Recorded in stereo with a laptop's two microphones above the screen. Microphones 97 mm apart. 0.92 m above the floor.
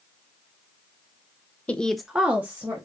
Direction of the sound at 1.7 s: 15° left (ahead or behind).